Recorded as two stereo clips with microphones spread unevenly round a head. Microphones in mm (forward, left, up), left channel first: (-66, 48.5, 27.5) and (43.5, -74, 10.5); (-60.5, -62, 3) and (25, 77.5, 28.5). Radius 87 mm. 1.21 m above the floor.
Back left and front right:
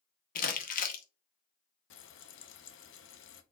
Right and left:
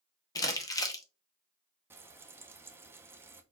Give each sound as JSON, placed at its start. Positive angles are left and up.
{"t": 0.3, "sound": "crumpling", "azimuth_deg": 175, "distance_m": 0.9}
{"t": 1.9, "sound": "frying", "azimuth_deg": 130, "distance_m": 0.6}